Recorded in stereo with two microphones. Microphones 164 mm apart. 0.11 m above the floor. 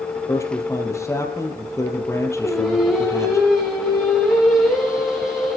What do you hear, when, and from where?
0.3 s a man speaking: 15° left (ahead or behind), 3.5 m
2.4 s singing: 5° right (ahead or behind), 7 m